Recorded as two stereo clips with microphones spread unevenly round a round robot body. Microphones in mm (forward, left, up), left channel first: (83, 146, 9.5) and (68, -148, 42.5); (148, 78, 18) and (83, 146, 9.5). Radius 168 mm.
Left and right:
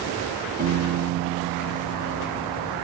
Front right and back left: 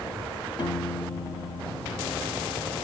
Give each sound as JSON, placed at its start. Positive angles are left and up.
{"t": 0.6, "sound": "a piano", "azimuth_deg": -35, "distance_m": 1.1}